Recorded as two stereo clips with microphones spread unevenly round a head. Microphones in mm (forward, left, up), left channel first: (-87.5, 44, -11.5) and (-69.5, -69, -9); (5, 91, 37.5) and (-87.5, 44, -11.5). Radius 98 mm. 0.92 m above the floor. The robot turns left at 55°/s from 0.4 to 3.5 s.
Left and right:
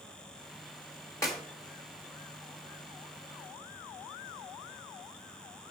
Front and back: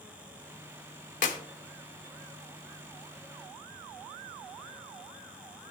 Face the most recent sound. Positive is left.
turn(degrees=-100)